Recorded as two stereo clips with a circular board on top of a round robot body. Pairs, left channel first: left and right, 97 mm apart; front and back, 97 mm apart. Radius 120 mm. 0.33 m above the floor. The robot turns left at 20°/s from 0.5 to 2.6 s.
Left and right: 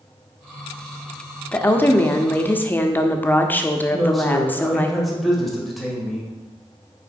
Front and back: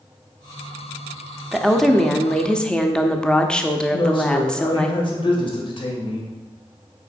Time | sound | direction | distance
1.5 | a woman speaking | 85° left | 1.0 m
3.9 | a man speaking | straight ahead | 2 m